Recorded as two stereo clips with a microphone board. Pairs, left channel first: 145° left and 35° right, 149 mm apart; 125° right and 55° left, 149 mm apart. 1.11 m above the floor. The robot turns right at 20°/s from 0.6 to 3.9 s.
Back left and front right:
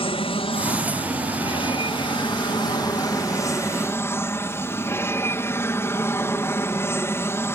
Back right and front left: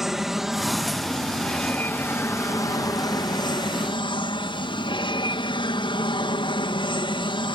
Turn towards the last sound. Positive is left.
turn(degrees=-150)